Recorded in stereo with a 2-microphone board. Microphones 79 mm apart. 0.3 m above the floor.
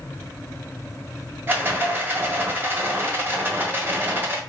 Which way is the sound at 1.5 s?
25° right (ahead or behind).